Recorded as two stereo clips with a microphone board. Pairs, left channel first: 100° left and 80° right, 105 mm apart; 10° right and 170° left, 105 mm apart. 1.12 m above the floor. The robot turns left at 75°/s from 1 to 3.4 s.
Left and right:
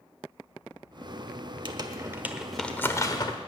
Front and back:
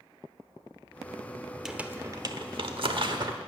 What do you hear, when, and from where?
1.6 s crumpling: 105° right, 1.1 m; by 3.4 s 125° left, 1.1 m